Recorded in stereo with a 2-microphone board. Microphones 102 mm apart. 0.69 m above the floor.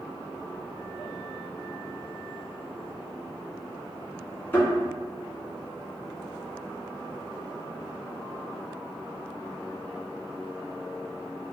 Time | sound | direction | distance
4.5 | a thud | 20° left (ahead or behind) | 1.9 m